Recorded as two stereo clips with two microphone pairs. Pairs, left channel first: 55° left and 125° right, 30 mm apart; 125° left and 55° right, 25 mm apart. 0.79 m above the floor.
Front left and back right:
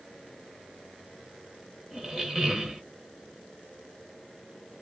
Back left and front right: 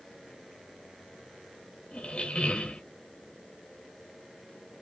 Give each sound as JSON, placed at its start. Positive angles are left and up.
{"t": 1.9, "sound": "a squeak", "azimuth_deg": 165, "distance_m": 1.1}